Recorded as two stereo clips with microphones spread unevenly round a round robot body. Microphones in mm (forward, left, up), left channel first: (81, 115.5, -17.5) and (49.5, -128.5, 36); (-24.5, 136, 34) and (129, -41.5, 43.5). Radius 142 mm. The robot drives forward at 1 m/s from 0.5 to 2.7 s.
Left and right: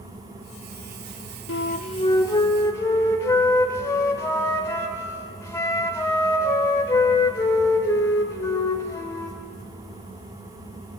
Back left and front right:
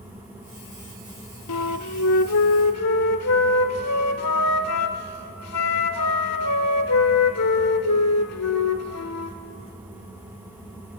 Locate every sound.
1.5 s a flute: 130° left, 0.5 m; by 9.4 s 165° left, 1.6 m